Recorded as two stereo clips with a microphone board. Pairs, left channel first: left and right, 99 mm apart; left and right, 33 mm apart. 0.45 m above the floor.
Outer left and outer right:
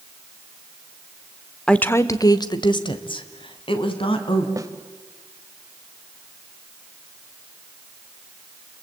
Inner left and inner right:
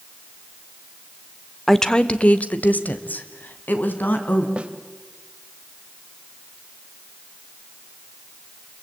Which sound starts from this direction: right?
A snare drum, at 4.6 s.